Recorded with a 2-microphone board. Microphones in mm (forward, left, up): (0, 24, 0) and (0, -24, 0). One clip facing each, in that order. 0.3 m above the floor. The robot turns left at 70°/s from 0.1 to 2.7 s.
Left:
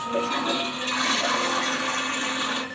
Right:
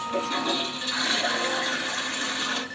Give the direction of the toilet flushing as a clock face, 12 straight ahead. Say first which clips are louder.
Left 2 dB; 6 o'clock.